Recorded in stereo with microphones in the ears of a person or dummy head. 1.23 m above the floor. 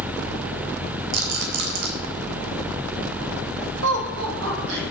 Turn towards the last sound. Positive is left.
turn(degrees=-85)